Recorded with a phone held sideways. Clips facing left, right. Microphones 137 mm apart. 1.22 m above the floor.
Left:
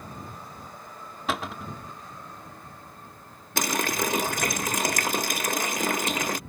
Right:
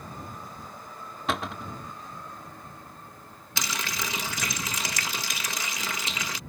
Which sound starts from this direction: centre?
A cupboard door, at 1.3 s.